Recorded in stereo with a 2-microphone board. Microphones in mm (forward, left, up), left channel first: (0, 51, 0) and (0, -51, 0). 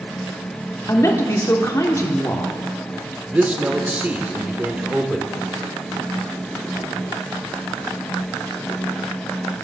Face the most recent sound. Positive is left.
turn(degrees=-15)  # may be behind; listen again after turning